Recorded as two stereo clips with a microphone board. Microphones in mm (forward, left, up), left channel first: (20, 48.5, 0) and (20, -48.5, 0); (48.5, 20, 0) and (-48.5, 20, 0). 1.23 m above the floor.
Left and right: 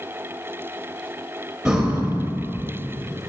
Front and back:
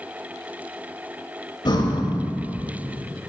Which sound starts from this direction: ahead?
Breathing, at 1.6 s.